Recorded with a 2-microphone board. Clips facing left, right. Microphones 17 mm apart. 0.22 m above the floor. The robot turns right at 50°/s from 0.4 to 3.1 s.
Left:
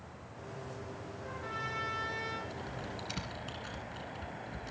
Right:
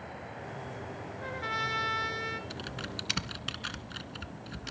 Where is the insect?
90° right, 1.1 m; by 4.7 s 45° left, 1.1 m.